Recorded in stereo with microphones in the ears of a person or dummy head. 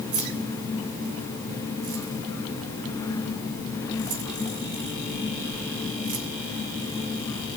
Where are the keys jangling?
40° right (ahead or behind), 2.5 m.